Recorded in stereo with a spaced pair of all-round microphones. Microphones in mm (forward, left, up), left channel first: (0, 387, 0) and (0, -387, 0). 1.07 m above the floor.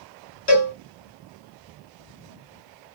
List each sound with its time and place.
0.5 s a cowbell: 60° left (ahead or behind), 1.6 m